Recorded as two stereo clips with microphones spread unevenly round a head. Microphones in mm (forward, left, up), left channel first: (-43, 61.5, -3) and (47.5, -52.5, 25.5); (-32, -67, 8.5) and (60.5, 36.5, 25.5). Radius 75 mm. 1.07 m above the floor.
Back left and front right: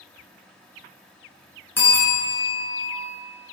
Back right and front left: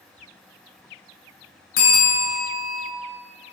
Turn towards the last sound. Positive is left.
turn(degrees=-155)